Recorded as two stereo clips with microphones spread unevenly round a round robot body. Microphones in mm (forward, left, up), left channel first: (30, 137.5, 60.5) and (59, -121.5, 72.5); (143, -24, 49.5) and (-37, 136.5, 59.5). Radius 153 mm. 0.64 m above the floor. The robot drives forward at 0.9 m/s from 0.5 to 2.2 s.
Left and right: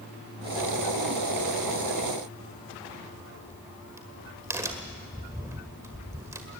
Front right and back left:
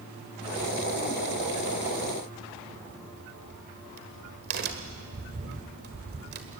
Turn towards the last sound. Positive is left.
turn(degrees=-165)